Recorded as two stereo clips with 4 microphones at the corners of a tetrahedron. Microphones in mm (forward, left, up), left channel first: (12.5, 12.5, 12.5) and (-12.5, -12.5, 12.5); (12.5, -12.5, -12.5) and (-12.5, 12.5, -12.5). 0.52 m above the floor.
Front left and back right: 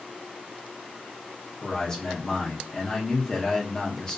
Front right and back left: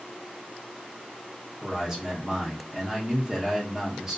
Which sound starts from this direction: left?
A man speaking, at 1.6 s.